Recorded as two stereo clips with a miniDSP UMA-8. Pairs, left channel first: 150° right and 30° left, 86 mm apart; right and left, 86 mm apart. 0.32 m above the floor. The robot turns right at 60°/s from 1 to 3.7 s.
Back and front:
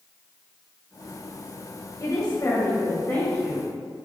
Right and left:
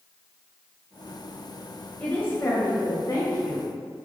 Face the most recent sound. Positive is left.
turn(degrees=-55)